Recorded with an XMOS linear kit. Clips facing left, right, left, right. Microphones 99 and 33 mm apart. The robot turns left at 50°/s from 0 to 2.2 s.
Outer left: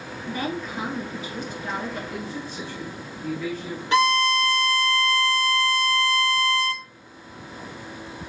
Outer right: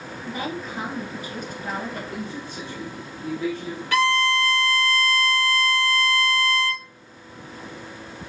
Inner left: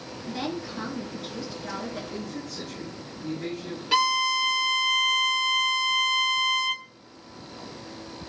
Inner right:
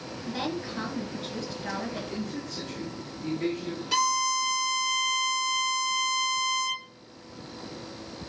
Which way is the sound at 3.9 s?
25° left (ahead or behind).